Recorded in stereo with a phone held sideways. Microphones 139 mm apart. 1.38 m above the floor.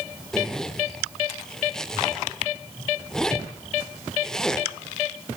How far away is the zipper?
About 2 m.